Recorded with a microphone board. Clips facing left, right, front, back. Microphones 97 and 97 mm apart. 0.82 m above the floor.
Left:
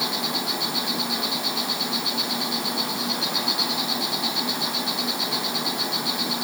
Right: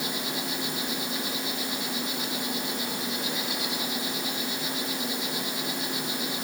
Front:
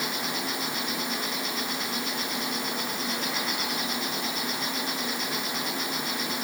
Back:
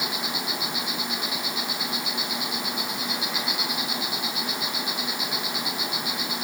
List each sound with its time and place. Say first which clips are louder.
0.0 s an insect: left 4 dB, even; 100° left, 3.5 m